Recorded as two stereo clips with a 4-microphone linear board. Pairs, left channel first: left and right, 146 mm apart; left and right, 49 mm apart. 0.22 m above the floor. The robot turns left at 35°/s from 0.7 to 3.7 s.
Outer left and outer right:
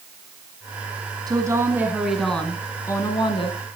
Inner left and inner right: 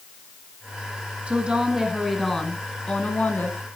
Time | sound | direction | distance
1.3 | a woman speaking | 150° right | 2 m